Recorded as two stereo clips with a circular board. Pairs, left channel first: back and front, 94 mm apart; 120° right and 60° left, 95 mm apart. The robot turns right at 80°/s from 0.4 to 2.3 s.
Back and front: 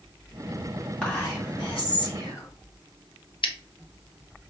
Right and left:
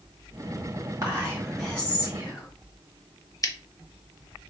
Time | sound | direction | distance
1.0 | whispering | 105° left | 2.5 m
3.4 | scissors | 170° right | 0.5 m